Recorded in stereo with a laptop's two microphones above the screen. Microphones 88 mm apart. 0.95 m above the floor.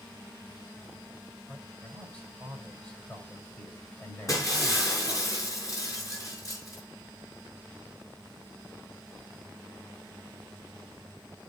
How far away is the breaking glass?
About 5.5 m.